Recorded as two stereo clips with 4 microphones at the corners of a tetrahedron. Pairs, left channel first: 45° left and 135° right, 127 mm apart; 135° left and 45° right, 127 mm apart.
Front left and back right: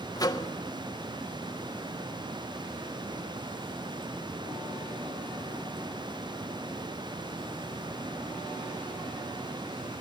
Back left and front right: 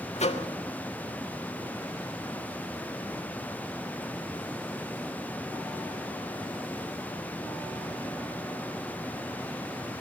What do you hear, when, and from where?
0.2 s a microwave: 105° left, 1.5 m